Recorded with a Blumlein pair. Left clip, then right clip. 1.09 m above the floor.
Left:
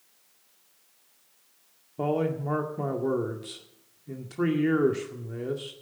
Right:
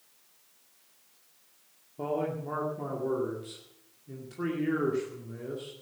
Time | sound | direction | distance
2.0 | a man speaking | 20° left | 2 m